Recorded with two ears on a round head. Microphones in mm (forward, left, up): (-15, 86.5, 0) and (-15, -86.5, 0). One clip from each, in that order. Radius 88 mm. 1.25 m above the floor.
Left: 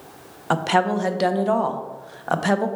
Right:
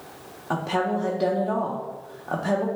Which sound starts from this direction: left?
A woman speaking, at 0.5 s.